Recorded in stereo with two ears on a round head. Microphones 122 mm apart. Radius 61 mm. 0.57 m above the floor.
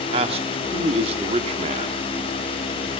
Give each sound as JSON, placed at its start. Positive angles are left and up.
{"t": 0.1, "sound": "a man speaking", "side_deg": -45, "distance_m": 1.7}